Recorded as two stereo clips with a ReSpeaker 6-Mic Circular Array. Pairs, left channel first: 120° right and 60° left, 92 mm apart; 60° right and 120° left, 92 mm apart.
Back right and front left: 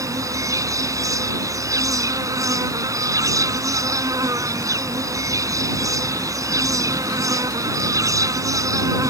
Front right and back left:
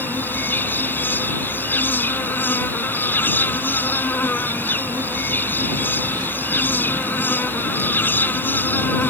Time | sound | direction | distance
0.0 | an insect | 10° left | ?